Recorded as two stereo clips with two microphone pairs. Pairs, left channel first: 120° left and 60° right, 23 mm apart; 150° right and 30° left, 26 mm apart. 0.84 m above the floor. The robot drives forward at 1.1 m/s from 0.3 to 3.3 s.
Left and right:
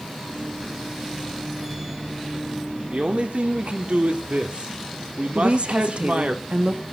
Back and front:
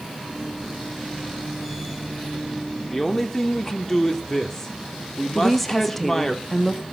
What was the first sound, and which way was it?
A man speaking, 65° right.